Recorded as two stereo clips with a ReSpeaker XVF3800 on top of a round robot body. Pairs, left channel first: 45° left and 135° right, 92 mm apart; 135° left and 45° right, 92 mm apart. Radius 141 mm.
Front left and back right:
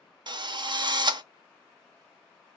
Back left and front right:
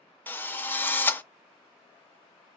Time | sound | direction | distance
0.3 | a drill | 160° right | 0.7 m